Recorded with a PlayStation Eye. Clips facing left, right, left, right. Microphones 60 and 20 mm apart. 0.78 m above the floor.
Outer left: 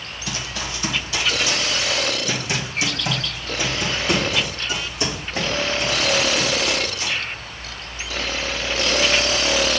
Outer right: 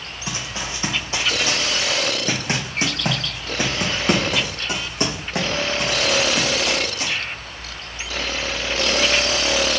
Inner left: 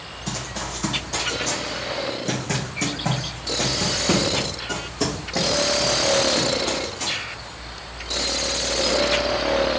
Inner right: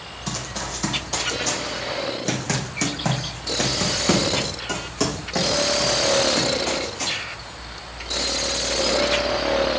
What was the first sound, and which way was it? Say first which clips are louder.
Running footsteps: even, inner right 1 dB; 25° right (ahead or behind).